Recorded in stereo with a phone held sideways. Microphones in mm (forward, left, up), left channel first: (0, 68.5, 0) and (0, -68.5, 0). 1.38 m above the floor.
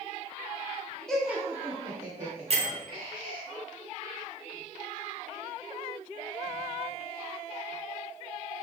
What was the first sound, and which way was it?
Laughter, 5° left (ahead or behind).